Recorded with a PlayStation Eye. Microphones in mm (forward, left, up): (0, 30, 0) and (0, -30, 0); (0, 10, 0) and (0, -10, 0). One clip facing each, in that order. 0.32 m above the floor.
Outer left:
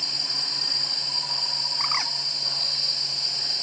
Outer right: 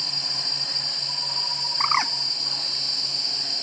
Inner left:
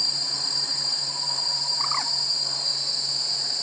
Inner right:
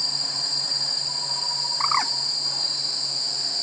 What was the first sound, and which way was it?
A bird, 30° right (ahead or behind).